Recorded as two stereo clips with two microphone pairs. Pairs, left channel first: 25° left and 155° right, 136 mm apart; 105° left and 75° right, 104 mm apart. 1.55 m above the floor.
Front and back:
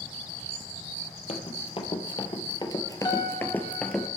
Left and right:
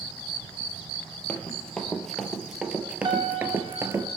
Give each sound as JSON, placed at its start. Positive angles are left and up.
{"t": 1.3, "sound": "running footsteps", "azimuth_deg": 30, "distance_m": 2.0}
{"t": 3.0, "sound": "a piano", "azimuth_deg": -35, "distance_m": 2.5}